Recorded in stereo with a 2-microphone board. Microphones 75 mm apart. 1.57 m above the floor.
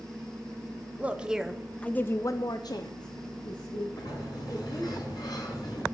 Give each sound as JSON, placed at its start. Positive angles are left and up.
{"t": 1.0, "sound": "a woman speaking", "side_deg": -20, "distance_m": 1.1}
{"t": 3.9, "sound": "a sliding door", "side_deg": 70, "distance_m": 8.0}